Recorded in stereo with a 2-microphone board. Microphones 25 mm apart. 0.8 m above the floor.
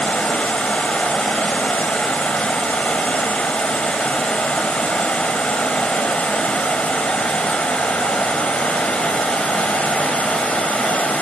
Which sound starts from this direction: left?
Running water, at 0.0 s.